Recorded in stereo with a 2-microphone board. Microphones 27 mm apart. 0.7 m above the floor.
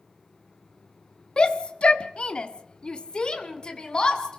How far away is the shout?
About 0.8 m.